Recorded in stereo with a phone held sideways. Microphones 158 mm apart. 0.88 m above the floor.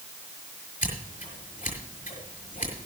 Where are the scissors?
55° left (ahead or behind), 5.5 m.